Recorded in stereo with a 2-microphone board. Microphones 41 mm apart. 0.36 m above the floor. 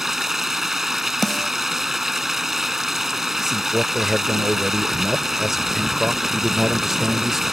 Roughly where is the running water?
Centre.